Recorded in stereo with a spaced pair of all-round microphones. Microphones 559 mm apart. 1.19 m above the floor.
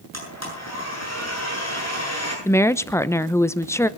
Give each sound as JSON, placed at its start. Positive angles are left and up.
{"t": 0.1, "sound": "a blender", "side_deg": 30, "distance_m": 8.0}
{"t": 2.5, "sound": "a woman speaking", "side_deg": 5, "distance_m": 0.9}